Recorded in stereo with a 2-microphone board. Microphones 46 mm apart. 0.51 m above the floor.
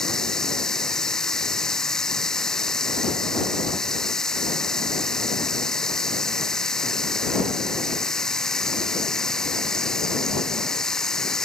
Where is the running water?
10° left (ahead or behind).